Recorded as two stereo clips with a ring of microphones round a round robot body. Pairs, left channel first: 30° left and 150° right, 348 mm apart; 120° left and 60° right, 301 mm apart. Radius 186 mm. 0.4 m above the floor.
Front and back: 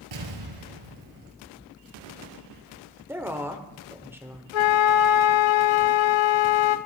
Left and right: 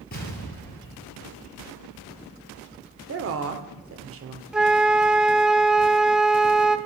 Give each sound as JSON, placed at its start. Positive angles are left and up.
{"t": 0.1, "sound": "an explosion", "azimuth_deg": -175, "distance_m": 2.5}
{"t": 3.1, "sound": "a woman speaking", "azimuth_deg": -70, "distance_m": 1.2}
{"t": 4.5, "sound": "a flute", "azimuth_deg": 30, "distance_m": 0.6}